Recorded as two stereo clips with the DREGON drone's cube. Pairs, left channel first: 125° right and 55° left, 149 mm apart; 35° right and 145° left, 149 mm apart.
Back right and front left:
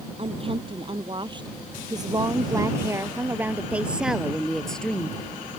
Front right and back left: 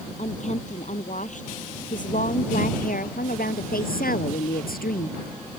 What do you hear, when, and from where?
0.2 s a woman speaking: 5° left; by 5.2 s 45° right